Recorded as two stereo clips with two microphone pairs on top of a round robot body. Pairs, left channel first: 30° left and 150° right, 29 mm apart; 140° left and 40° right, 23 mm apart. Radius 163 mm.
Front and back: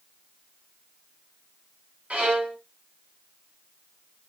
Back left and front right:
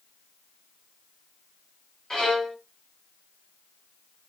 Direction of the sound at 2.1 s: 160° right.